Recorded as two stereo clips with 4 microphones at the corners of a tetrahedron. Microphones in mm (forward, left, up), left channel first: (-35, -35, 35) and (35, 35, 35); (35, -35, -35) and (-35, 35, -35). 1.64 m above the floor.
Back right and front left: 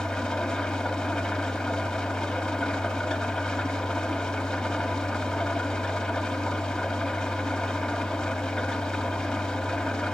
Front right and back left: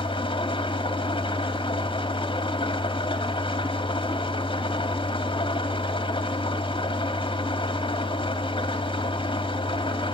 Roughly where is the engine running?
Ahead right.